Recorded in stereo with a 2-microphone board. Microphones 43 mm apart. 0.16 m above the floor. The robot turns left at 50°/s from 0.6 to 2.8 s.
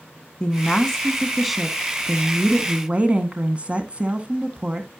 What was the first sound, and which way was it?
A woman speaking, 20° left (ahead or behind).